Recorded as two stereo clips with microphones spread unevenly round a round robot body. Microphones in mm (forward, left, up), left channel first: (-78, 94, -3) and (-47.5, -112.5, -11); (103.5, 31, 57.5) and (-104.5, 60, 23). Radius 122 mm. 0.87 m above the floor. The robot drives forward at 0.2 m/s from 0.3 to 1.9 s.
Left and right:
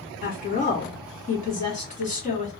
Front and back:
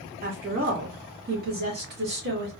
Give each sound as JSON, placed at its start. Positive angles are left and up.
{"t": 0.2, "sound": "a woman speaking", "azimuth_deg": 140, "distance_m": 1.4}